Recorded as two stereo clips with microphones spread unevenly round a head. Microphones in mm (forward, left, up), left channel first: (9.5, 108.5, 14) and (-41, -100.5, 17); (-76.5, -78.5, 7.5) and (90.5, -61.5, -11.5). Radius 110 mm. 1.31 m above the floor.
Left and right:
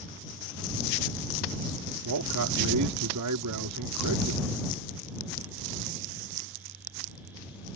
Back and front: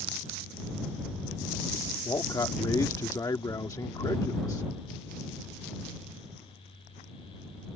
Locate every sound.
2.0 s a man speaking: 105° right